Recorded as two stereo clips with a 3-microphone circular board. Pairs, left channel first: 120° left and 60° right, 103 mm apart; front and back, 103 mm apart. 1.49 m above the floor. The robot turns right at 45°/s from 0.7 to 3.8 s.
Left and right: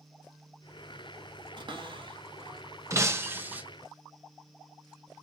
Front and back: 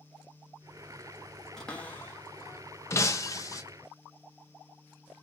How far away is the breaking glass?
About 0.7 m.